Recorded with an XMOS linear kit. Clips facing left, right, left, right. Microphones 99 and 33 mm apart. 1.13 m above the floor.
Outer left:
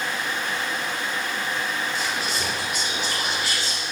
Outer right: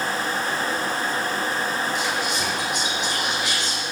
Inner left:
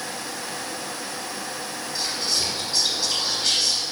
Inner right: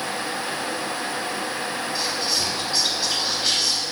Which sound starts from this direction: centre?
Whispering, at 1.9 s.